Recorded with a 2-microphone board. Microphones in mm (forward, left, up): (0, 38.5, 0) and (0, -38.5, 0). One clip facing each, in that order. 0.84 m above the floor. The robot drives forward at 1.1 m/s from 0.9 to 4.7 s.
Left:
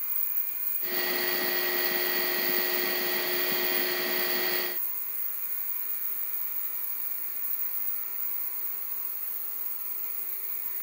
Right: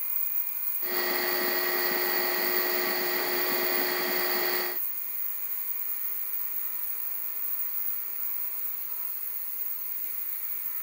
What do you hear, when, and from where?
Only background noise.